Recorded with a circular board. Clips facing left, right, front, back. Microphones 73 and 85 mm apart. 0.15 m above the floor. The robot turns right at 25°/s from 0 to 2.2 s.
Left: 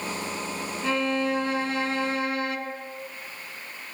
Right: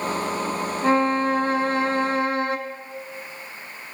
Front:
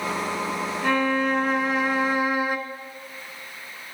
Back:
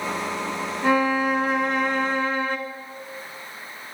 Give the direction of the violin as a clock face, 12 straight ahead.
4 o'clock.